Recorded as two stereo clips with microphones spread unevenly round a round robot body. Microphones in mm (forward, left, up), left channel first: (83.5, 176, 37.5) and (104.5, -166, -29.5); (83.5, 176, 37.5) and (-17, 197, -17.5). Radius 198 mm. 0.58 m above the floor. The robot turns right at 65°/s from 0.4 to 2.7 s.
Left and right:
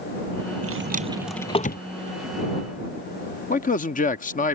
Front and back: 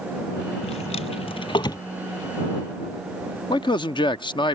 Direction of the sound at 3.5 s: 35° left.